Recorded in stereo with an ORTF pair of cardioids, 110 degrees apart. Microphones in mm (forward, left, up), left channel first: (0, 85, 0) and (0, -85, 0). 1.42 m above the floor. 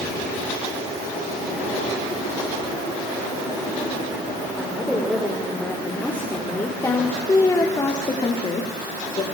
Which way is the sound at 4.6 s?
Straight ahead.